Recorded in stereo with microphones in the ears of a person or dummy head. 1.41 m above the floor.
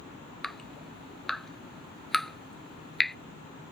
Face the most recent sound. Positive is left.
turn(degrees=5)  # may be behind; listen again after turning